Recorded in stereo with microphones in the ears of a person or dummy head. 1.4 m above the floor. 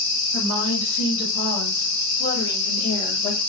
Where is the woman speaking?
75° left (ahead or behind), 2.5 m; by 3.4 s 30° left (ahead or behind), 1.6 m.